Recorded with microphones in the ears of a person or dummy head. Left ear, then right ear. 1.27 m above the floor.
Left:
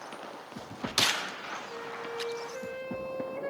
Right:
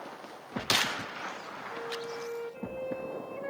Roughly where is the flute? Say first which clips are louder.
Right 1 dB; centre.